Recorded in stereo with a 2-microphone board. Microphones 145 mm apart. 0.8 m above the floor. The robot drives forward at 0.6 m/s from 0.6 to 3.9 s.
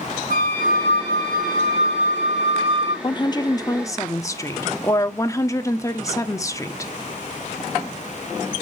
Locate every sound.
0.3 s a flute: 65° right (ahead or behind), 2 m; by 2.9 s 45° right (ahead or behind), 2.5 m
3.0 s a woman speaking: 35° left (ahead or behind), 0.7 m; by 6.9 s 20° left (ahead or behind), 1.1 m